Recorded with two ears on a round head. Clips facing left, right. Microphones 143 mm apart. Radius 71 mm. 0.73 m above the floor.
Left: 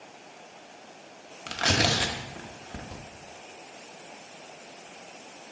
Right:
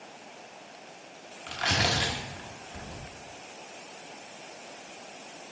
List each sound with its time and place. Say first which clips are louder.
1.5 s tearing paper: left 3 dB; 55° left (ahead or behind), 0.9 m